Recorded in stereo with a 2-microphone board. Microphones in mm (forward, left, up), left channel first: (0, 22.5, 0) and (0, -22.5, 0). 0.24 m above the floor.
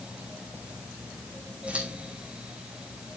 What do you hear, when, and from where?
1.7 s scissors: 30° right (ahead or behind), 3.5 m